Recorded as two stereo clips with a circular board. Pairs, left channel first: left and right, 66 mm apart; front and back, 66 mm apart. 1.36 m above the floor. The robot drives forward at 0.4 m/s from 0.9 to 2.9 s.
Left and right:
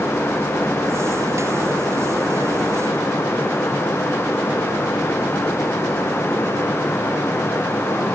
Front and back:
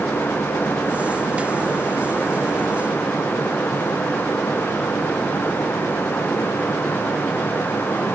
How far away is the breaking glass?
No breaking glass in this recording.